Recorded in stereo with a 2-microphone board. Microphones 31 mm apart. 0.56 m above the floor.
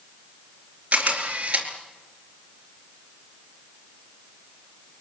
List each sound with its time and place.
0.9 s a camera shutter: 40° right (ahead or behind), 4 m